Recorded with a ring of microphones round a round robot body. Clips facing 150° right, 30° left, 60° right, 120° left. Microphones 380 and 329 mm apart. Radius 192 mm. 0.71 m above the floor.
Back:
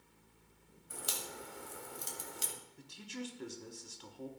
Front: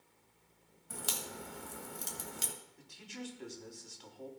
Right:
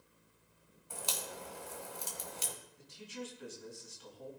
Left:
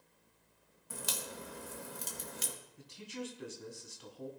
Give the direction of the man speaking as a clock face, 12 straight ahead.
7 o'clock.